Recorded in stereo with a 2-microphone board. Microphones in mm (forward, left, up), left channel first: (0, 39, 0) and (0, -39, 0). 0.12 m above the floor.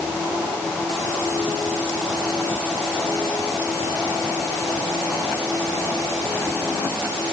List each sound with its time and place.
Only background noise.